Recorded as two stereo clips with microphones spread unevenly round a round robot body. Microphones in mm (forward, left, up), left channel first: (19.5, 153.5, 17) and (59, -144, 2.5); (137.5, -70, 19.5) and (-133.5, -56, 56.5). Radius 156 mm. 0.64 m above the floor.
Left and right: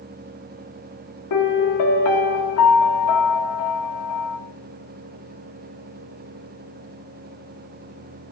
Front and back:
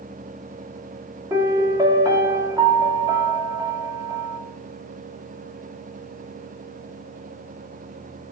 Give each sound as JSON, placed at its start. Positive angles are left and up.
{"t": 1.3, "sound": "a piano", "azimuth_deg": 95, "distance_m": 1.5}